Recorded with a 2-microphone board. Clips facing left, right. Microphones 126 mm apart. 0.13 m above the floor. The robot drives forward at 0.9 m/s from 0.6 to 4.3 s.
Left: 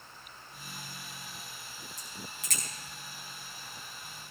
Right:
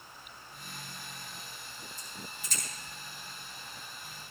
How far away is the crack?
About 4.5 m.